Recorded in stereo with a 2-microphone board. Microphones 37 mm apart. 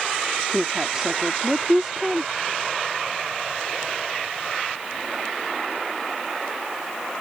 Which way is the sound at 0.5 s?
15° right (ahead or behind).